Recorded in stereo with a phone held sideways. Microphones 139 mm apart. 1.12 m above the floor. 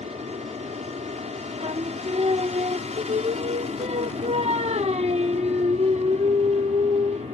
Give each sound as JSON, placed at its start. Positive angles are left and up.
{"t": 0.0, "sound": "an aircraft", "side_deg": -55}
{"t": 1.6, "sound": "singing", "side_deg": -50}